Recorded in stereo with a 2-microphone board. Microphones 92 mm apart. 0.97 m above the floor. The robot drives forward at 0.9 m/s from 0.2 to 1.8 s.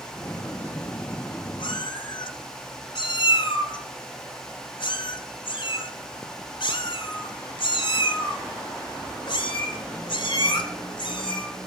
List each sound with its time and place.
1.6 s a cat meowing: 65° left (ahead or behind), 2.5 m; by 11.5 s 60° left (ahead or behind), 2.5 m